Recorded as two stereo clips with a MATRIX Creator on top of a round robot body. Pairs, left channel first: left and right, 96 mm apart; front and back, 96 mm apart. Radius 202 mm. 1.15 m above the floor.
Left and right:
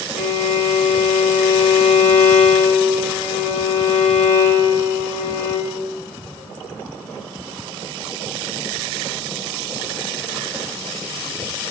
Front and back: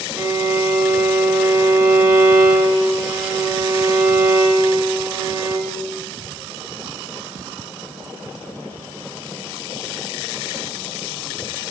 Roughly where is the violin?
Behind left.